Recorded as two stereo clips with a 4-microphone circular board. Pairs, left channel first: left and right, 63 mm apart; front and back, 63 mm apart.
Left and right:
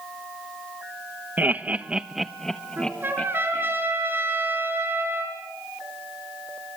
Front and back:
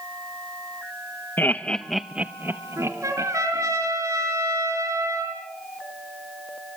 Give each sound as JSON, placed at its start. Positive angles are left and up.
{"t": 1.4, "sound": "laughter", "azimuth_deg": -40, "distance_m": 1.2}
{"t": 2.8, "sound": "a trumpet", "azimuth_deg": -145, "distance_m": 6.0}